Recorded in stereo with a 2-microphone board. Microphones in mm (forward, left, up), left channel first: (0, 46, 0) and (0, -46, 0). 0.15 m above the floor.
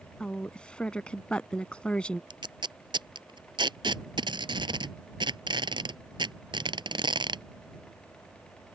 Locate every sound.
0.2 s a woman speaking: 10° left (ahead or behind)
2.3 s tape being pulled: 60° right (ahead or behind)